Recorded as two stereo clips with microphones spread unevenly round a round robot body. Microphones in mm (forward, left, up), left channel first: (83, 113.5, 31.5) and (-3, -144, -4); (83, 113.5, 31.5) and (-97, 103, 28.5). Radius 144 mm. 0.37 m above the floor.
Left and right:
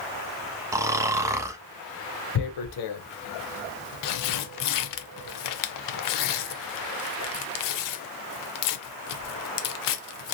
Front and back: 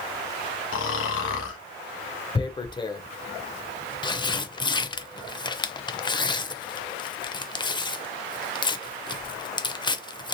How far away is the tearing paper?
About 0.6 m.